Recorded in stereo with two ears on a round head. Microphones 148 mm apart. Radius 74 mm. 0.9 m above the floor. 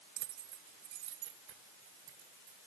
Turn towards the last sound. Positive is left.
turn(degrees=-85)